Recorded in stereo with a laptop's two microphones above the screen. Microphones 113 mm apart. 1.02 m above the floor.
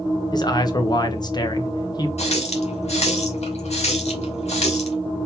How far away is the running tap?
About 1.4 m.